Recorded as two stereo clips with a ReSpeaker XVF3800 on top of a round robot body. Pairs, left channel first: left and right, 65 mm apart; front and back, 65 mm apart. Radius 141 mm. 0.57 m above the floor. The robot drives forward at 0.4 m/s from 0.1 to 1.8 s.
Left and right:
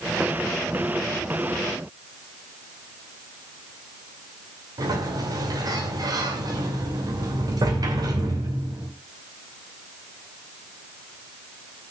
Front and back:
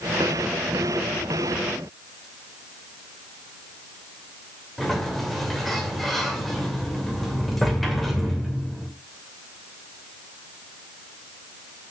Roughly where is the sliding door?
Right.